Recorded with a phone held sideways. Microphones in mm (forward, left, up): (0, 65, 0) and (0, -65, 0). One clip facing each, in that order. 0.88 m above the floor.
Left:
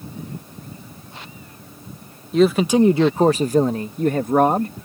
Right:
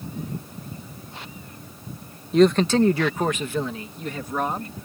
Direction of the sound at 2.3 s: Centre (ahead or behind).